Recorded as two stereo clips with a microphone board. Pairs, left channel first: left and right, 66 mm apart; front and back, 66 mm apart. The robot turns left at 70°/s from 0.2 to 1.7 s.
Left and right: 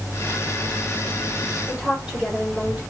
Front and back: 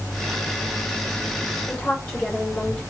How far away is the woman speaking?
About 1.0 m.